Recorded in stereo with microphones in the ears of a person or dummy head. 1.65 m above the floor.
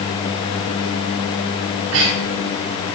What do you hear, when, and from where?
1.7 s breathing: 85° right, 6 m